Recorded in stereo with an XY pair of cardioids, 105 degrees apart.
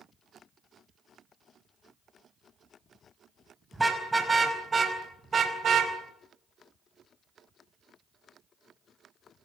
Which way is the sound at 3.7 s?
15° right.